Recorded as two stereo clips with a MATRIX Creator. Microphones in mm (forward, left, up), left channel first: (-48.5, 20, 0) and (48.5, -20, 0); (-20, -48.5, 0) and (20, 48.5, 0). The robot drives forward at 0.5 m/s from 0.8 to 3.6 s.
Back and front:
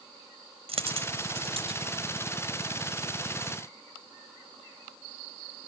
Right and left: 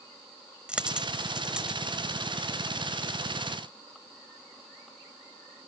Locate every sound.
0.7 s a dropped coin: 10° right; by 1.8 s 15° right